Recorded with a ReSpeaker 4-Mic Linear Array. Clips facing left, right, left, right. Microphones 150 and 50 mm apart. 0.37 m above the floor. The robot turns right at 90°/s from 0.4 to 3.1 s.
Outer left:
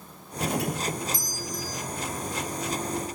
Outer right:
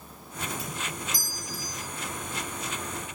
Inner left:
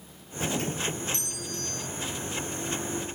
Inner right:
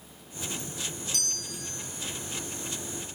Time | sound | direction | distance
0.4 | a doorbell | 85° left | ?